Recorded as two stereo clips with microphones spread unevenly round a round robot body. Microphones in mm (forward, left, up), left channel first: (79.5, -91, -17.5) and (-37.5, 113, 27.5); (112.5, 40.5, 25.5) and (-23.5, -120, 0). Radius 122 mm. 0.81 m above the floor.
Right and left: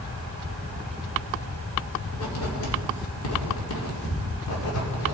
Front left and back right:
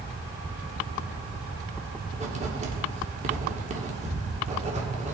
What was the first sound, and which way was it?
Writing, 75° right.